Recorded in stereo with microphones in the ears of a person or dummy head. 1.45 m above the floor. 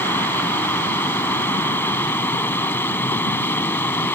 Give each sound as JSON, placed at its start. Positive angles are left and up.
{"t": 0.0, "sound": "a fan", "side_deg": 15}